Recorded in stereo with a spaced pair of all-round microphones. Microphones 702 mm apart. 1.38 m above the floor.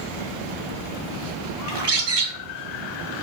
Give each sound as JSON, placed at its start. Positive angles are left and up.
{"t": 1.7, "sound": "a bird", "side_deg": -40, "distance_m": 0.6}